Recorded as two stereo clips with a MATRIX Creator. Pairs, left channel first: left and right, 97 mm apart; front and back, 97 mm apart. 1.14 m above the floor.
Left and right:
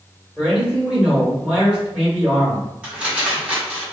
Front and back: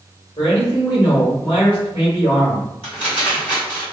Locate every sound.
0.4 s a man speaking: 5° right, 1.4 m
2.8 s crumpling: 10° right, 1.5 m